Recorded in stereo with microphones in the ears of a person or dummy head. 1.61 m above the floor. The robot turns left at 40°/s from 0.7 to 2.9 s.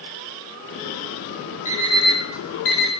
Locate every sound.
1.6 s an alarm clock: 35° left (ahead or behind), 6.5 m; by 2.9 s 85° left, 6.5 m